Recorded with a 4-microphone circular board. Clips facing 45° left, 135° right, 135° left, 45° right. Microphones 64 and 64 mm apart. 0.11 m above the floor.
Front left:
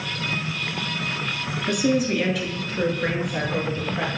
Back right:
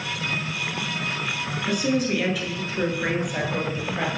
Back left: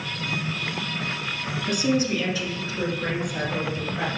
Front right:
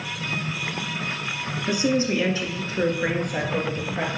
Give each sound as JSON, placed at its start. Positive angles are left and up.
{"t": 1.7, "sound": "a woman speaking", "azimuth_deg": -25, "distance_m": 1.3}